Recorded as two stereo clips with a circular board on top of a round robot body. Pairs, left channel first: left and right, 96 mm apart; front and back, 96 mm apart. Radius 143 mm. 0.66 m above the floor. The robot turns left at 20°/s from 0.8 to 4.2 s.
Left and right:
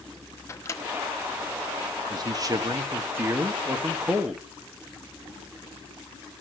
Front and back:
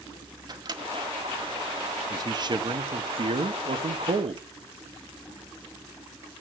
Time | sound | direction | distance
0.5 | a microwave | 145° left | 1.3 m
2.1 | a man speaking | 135° right | 1.1 m